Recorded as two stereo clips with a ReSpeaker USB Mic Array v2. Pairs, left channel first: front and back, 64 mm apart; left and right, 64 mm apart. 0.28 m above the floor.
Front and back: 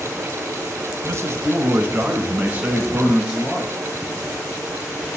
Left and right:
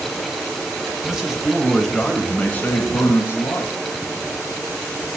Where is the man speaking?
160° right, 1.5 m; by 3.8 s 85° left, 1.5 m.